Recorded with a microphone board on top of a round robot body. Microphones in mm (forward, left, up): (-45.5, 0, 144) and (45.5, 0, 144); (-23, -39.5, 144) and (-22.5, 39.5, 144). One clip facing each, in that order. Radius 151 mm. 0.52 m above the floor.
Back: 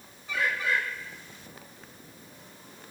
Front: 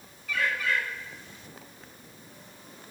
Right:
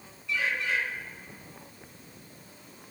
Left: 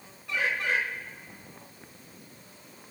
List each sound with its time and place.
0.3 s a bird: 120° left, 3 m